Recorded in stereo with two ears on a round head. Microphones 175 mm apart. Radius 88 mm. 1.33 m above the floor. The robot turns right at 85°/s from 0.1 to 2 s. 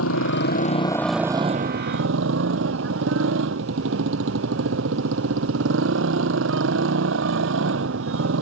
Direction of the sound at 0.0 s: 95° left.